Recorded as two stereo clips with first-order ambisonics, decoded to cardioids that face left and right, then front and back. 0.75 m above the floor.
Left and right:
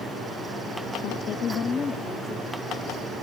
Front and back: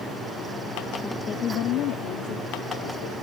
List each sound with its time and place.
1.0 s a woman speaking: 85° left; by 3.1 s straight ahead